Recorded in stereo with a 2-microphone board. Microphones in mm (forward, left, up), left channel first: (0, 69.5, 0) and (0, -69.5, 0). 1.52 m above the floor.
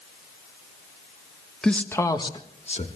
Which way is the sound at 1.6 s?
5° left (ahead or behind).